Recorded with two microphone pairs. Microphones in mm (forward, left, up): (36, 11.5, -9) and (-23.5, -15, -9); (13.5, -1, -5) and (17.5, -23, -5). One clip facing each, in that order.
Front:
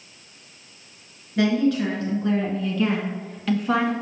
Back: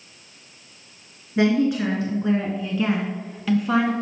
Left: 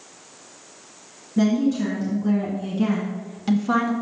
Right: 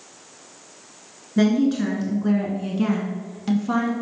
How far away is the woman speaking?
About 1.4 m.